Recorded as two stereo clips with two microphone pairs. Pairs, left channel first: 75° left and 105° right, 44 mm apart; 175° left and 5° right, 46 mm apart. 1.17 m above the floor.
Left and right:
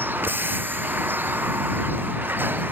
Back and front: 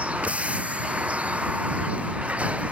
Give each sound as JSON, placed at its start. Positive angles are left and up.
{"t": 0.0, "sound": "a vehicle", "azimuth_deg": -65}